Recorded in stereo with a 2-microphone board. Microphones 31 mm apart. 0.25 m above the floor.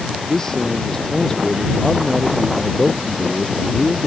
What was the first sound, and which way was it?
A man speaking, 15° left (ahead or behind).